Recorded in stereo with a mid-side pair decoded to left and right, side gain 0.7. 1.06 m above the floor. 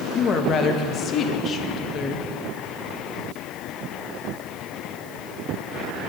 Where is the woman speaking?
45° left, 1.0 m.